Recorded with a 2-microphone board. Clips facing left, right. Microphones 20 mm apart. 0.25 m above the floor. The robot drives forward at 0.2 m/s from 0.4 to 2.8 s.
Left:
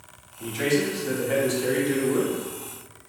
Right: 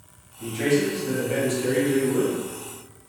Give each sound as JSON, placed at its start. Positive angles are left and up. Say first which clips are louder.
{"t": 0.4, "sound": "a man speaking", "louder": "right 2 dB", "side_deg": 20, "distance_m": 1.0}